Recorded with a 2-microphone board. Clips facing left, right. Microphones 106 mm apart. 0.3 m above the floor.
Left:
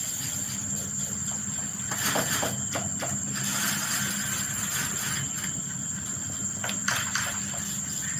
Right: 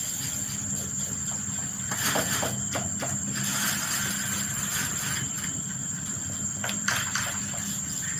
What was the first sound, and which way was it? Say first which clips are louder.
An insect: right 1 dB; 65° left (ahead or behind).